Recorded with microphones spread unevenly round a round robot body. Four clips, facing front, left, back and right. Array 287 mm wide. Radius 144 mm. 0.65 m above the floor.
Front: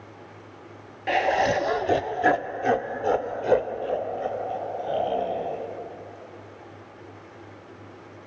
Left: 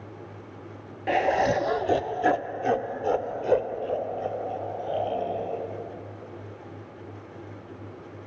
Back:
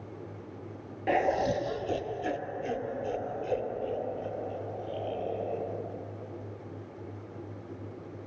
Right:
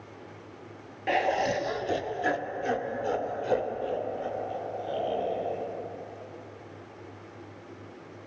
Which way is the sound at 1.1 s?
130° left.